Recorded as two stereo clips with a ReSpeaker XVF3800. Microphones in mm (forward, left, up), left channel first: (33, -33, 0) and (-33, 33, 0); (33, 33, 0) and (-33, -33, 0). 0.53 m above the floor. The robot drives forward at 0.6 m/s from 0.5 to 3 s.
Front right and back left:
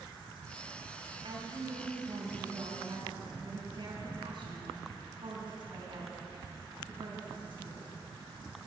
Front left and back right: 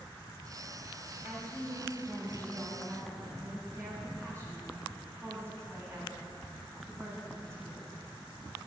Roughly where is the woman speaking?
Behind.